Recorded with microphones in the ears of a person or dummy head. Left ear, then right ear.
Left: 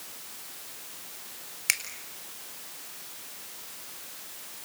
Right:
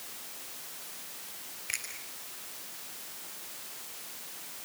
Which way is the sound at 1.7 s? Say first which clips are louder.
Left 9 dB; 60° left (ahead or behind).